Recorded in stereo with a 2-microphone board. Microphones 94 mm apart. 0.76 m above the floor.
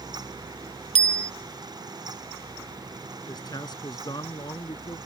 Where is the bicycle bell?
85° left.